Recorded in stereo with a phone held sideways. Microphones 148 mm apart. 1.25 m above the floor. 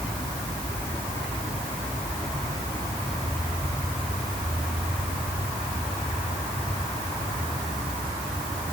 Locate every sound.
Only background noise.